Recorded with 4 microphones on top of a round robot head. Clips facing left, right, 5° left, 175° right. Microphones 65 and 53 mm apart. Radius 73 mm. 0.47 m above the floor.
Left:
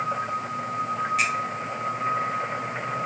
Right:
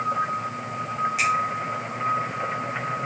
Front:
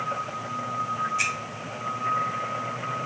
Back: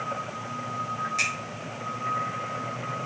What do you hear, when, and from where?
1.2 s a finger snap: 170° right, 3 m